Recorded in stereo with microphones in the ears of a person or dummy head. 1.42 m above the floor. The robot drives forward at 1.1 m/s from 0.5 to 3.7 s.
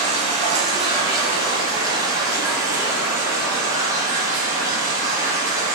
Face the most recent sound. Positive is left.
turn(degrees=-15)  # may be behind; listen again after turning